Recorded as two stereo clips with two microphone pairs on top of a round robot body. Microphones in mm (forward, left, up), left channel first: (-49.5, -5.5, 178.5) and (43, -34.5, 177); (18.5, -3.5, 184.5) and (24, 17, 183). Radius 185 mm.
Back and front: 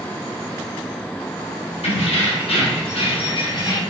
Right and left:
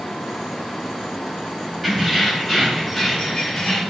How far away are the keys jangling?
About 1.7 m.